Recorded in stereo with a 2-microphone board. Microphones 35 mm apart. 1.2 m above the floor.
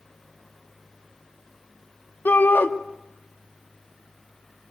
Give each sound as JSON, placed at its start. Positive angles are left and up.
{"t": 2.2, "sound": "a shout", "side_deg": 85, "distance_m": 1.8}